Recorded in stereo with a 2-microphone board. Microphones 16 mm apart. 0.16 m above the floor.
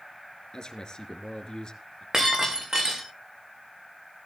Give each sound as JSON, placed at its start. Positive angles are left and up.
{"t": 0.5, "sound": "a man speaking", "side_deg": 45, "distance_m": 2.5}
{"t": 2.1, "sound": "breaking glass", "side_deg": -45, "distance_m": 5.0}